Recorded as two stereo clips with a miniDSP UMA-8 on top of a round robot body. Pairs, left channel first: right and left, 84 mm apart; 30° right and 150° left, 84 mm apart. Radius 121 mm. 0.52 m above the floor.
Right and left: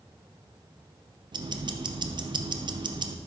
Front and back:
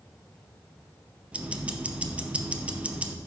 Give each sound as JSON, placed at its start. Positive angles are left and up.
{"t": 1.3, "sound": "ticking", "azimuth_deg": 80, "distance_m": 0.6}